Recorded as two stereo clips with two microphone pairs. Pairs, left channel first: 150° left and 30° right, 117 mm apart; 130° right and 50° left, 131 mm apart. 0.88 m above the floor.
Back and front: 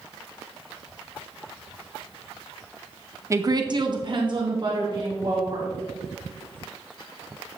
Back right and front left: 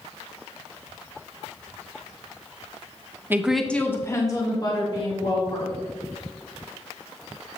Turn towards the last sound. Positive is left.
turn(degrees=-80)